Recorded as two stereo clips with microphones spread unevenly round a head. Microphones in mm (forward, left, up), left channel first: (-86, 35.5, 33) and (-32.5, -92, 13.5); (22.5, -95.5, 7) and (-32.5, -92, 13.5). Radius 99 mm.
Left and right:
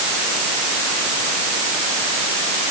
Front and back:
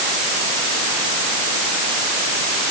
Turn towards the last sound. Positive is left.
No sound to turn to.